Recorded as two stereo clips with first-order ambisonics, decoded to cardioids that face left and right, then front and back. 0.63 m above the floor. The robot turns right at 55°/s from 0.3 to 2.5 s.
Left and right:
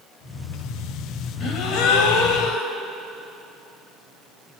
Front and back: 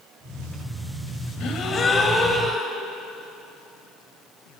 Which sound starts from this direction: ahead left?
A gasp, at 1.4 s.